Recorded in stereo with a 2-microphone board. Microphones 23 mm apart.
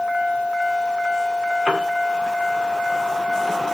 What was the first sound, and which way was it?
A piano, 70° right (ahead or behind).